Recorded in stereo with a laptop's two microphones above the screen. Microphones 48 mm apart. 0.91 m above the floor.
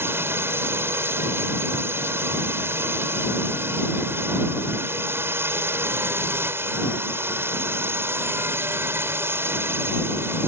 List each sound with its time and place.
0.0 s a drone: 65° right (ahead or behind)